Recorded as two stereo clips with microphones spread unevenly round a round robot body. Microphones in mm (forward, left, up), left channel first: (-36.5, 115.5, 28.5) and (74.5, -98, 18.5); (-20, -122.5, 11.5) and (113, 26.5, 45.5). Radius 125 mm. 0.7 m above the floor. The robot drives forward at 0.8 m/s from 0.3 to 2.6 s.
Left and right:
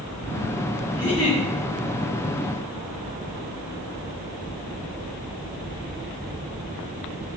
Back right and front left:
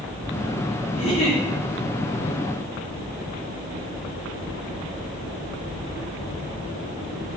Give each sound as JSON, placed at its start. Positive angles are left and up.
{"t": 0.9, "sound": "a giggle", "azimuth_deg": -175, "distance_m": 1.6}